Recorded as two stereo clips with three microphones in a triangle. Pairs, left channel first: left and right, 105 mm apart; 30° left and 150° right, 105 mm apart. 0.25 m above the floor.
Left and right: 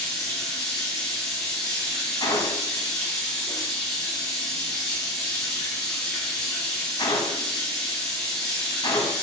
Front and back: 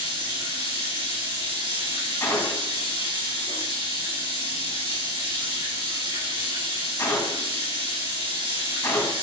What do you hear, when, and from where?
0.0 s running water: 175° left, 3.5 m
2.2 s a gunshot: 80° left, 1.2 m